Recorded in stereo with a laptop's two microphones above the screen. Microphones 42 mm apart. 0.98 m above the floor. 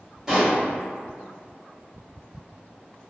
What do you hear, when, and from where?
0.3 s a pop: 10° right (ahead or behind), 1.5 m